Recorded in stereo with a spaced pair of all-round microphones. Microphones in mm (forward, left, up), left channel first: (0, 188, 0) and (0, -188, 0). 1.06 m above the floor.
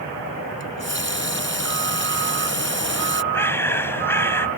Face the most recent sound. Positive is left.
turn(degrees=5)  # may be behind; listen again after turning